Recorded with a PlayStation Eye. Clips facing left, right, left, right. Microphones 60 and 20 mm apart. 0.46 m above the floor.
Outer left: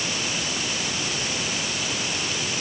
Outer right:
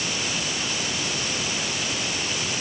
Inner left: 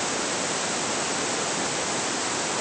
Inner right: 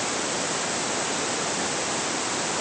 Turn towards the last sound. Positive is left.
No sound to turn to.